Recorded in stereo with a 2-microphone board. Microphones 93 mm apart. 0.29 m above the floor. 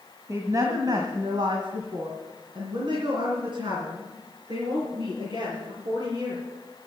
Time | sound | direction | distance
0.3 | a woman speaking | 30° right (ahead or behind) | 1.7 m